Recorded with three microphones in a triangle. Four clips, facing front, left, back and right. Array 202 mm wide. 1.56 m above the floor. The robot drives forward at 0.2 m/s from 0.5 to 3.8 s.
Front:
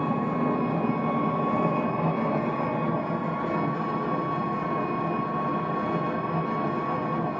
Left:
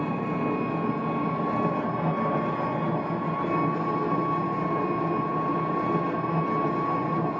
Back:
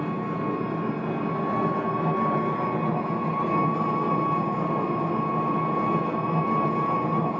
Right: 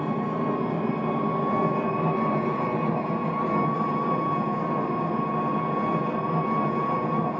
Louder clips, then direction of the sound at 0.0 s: Right 1 dB, front 2 dB; 10° right.